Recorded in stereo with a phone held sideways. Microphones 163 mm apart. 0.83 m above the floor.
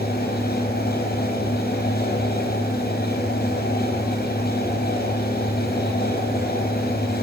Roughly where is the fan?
Left.